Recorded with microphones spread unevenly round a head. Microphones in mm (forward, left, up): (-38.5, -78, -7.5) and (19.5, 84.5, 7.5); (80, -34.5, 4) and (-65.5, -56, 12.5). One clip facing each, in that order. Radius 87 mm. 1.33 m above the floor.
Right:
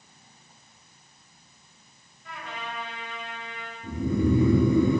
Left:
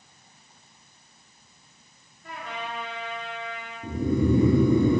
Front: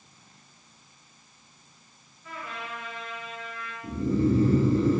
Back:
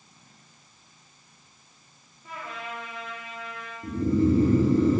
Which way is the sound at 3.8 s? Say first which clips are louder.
Left 1 dB, back 2 dB; 130° left.